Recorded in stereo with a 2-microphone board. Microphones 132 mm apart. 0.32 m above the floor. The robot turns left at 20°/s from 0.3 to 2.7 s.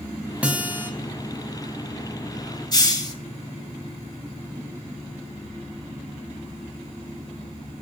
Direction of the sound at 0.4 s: 10° right (ahead or behind).